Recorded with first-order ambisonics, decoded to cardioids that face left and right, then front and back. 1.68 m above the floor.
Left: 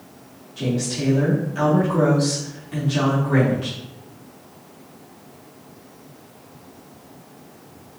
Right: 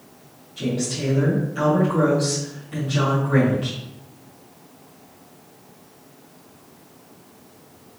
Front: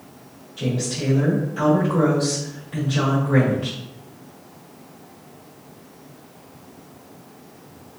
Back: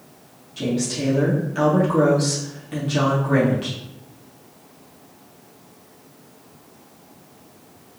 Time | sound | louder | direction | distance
0.6 | a woman speaking | left 1 dB, back 1 dB | 170° left | 2 m